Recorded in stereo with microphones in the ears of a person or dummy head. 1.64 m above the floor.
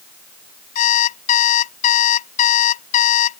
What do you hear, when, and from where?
0.8 s an alarm clock: 45° left (ahead or behind)